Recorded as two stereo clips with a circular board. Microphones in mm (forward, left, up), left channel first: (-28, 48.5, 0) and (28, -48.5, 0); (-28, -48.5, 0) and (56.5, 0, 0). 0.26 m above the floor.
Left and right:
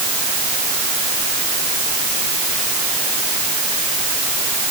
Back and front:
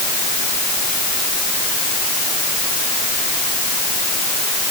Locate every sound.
Only background noise.